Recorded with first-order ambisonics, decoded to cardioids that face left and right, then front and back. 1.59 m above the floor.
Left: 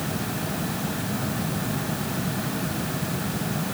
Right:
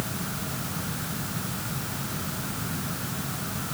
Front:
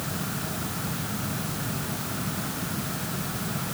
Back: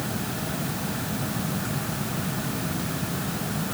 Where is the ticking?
I don't hear ticking.